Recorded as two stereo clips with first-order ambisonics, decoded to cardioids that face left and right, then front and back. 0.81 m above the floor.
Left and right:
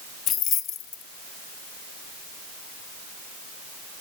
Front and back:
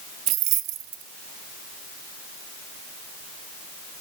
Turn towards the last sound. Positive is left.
turn(degrees=145)